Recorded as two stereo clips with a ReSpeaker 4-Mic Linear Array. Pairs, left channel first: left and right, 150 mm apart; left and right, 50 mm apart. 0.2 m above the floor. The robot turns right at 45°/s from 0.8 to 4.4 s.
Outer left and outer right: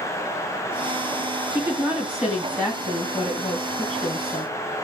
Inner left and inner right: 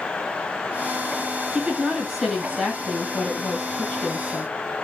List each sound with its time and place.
1.5 s a woman speaking: 20° right (ahead or behind), 1.6 m; by 4.5 s 15° left (ahead or behind), 1.6 m